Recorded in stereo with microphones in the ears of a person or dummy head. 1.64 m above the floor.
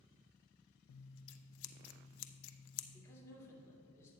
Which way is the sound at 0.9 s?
75° left (ahead or behind).